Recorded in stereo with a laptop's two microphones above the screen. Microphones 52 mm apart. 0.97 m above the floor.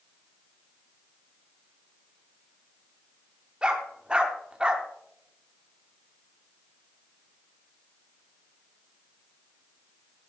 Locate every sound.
3.6 s a dog barking: 20° right (ahead or behind), 0.8 m